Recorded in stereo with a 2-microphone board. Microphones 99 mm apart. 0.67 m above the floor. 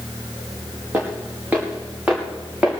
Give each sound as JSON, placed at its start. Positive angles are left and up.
{"t": 0.9, "sound": "footsteps", "side_deg": -20, "distance_m": 5.5}